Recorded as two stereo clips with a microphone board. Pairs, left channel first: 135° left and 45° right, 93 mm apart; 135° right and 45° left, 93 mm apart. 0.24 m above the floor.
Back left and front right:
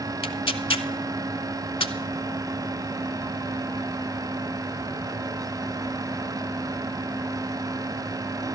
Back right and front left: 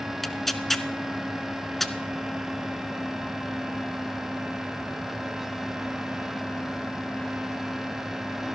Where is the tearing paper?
140° left, 0.6 m.